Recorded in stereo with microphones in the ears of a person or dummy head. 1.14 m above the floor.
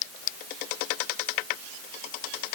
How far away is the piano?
No piano in this recording.